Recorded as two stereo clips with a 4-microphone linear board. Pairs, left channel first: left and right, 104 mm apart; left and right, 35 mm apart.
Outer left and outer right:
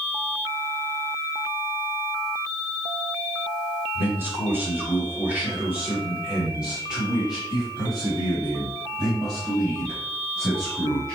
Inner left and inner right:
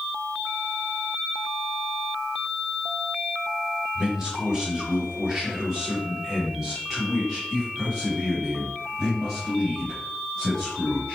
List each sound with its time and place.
4.0 s a man speaking: 25° right (ahead or behind), 1.7 m; by 11.2 s 5° left (ahead or behind), 4 m